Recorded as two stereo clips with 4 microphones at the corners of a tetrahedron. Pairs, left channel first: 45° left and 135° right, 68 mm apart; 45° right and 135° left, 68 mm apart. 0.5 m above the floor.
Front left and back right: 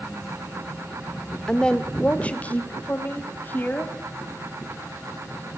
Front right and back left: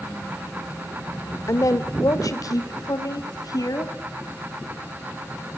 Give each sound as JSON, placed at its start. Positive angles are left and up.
{"t": 1.5, "sound": "a woman speaking", "azimuth_deg": -35, "distance_m": 1.4}